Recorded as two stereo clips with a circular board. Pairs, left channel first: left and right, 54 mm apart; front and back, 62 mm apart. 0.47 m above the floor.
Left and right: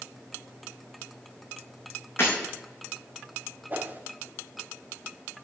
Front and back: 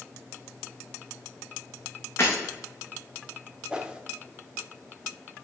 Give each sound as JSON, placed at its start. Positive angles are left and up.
{"t": 2.2, "sound": "breaking glass", "azimuth_deg": 45, "distance_m": 4.0}
{"t": 3.7, "sound": "a whoosh", "azimuth_deg": -115, "distance_m": 0.7}